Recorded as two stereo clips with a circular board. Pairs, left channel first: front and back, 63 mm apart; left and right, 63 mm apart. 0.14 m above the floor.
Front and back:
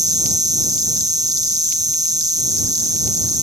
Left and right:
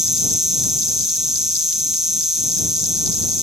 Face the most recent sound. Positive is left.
turn(degrees=-175)